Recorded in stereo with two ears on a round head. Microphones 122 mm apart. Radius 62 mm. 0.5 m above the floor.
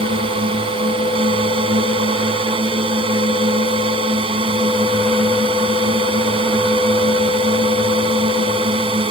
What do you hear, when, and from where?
0.0 s a drone: 40° right (ahead or behind)